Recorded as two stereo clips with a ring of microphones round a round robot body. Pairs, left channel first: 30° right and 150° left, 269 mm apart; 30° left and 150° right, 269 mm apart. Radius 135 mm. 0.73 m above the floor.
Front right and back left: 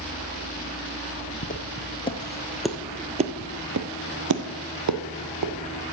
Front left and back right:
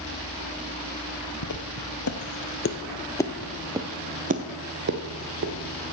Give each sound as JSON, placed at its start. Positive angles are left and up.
{"t": 1.4, "sound": "footsteps", "azimuth_deg": 25, "distance_m": 1.3}